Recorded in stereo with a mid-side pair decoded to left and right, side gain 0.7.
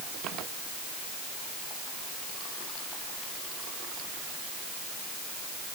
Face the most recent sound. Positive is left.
No sound to turn to.